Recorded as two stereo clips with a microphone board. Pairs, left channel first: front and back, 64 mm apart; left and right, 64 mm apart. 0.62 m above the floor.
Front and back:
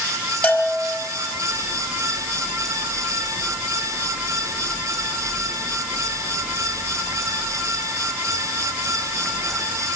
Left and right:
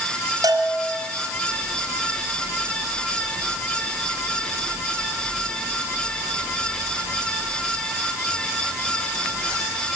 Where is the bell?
65° right, 4 m.